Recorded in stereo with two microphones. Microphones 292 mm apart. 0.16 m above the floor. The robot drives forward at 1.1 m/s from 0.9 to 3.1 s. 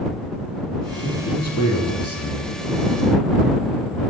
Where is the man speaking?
65° left (ahead or behind), 5.5 m; by 2.5 s 50° left (ahead or behind), 6.5 m.